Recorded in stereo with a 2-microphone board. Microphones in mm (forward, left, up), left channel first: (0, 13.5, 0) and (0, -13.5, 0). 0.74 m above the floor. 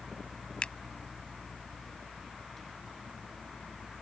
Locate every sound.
0.6 s a finger snap: 35° left (ahead or behind)